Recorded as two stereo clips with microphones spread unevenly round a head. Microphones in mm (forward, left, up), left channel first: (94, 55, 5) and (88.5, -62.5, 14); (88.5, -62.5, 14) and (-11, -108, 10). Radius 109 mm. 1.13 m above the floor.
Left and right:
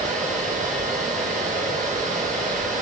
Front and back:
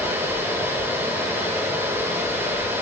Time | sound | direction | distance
0.0 | a fan | 85° right | 2.0 m